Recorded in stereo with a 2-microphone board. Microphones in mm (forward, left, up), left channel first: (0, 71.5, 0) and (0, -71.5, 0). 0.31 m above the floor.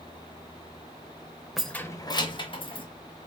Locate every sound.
1.6 s keys jangling: centre (ahead or behind), 0.5 m; by 2.9 s 35° left (ahead or behind), 1.2 m